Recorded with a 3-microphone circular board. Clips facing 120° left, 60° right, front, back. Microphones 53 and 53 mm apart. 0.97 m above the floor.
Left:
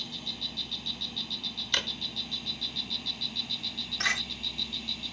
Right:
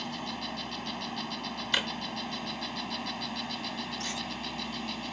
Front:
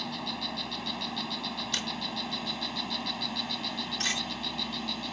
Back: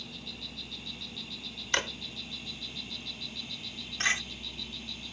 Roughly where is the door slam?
Behind left.